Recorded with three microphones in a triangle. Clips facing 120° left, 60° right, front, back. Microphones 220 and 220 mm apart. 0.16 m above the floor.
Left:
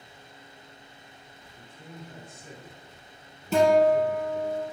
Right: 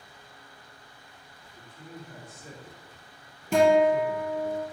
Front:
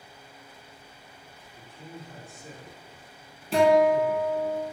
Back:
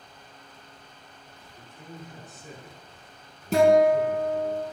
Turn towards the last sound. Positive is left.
turn(degrees=-140)